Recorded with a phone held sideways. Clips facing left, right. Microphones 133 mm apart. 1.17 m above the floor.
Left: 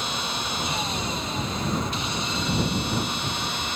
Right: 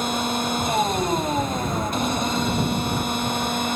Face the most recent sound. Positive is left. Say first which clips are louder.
# right 7 dB
turn(degrees=-45)  # may be behind; listen again after turning